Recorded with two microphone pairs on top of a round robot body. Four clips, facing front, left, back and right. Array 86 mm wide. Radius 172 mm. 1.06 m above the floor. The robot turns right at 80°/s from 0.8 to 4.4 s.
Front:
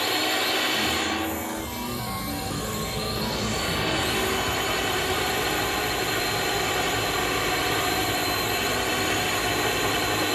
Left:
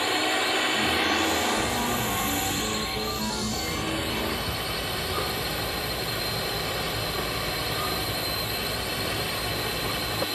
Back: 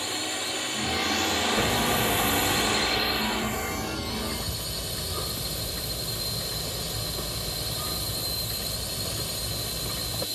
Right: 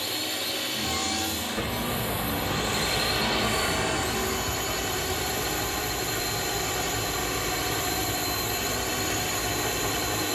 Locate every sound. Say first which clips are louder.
0.0 s a drone: left 8 dB, front 7 dB; 55° left; by 10.4 s 15° right
1.6 s hammering: left 3 dB, back 6 dB; 150° right; by 10.3 s 75° left